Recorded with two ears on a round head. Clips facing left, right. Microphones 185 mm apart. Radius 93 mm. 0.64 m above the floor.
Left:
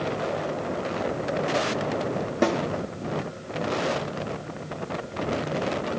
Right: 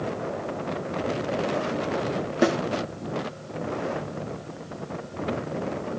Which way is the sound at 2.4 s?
5° right (ahead or behind).